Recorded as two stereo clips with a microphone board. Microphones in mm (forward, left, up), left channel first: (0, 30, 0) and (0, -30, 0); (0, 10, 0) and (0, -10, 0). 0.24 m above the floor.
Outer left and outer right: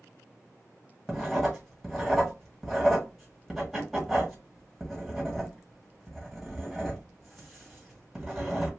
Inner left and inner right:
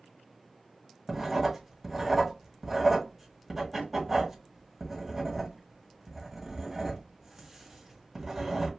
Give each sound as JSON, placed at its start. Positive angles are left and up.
{"t": 1.1, "sound": "writing", "side_deg": -5, "distance_m": 1.7}